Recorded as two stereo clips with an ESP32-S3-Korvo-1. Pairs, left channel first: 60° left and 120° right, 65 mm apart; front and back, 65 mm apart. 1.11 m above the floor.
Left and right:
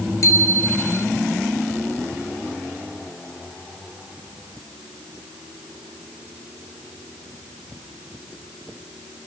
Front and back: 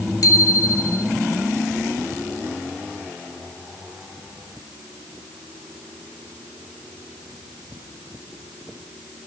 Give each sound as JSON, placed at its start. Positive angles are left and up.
{"t": 0.2, "sound": "a bicycle bell", "azimuth_deg": 25, "distance_m": 3.0}